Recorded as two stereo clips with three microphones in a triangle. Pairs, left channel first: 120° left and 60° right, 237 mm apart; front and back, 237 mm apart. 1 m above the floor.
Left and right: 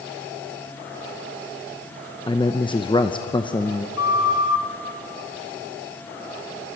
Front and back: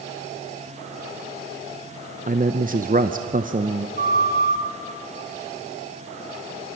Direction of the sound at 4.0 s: 130° left.